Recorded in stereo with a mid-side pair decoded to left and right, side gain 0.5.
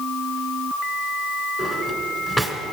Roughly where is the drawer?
Ahead.